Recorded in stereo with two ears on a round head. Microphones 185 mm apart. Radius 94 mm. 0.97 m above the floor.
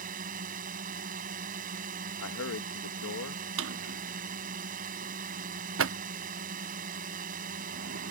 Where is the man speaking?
75° left (ahead or behind).